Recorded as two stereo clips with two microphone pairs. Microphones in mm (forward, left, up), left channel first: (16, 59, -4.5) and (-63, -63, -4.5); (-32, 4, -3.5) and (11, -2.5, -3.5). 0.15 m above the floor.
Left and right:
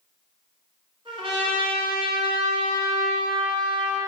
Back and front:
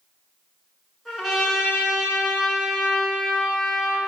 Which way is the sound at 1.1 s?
100° right.